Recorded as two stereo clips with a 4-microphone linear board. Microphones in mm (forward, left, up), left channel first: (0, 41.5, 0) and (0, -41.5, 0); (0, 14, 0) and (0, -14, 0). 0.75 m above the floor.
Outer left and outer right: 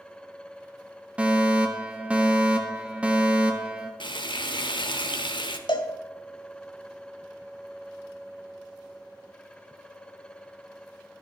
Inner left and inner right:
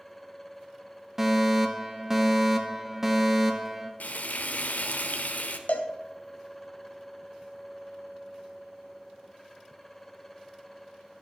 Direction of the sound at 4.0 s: 75° left (ahead or behind).